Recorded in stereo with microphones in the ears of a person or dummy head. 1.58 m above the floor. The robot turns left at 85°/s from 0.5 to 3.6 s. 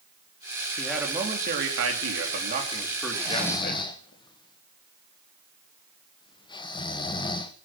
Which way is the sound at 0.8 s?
10° left.